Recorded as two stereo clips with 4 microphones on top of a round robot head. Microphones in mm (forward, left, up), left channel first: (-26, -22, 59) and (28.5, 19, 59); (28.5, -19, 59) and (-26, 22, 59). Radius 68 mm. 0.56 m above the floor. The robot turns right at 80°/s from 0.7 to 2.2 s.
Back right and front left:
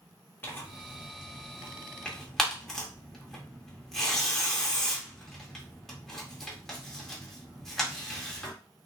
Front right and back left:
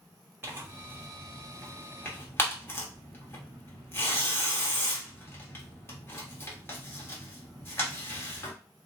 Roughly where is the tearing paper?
Behind.